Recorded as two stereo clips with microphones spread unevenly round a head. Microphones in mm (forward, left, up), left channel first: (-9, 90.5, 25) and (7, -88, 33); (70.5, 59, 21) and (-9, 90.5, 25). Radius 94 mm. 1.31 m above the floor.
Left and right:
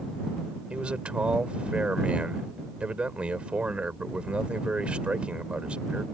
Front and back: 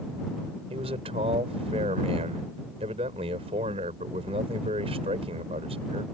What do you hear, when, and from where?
0.7 s a man speaking: 170° right